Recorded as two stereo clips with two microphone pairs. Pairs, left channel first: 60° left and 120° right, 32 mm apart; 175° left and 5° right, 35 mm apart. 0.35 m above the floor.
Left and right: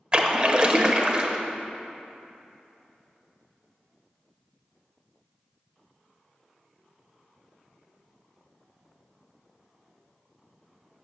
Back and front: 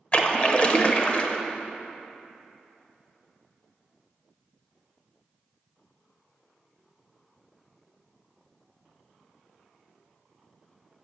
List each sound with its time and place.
0.1 s a splash: 155° right, 0.9 m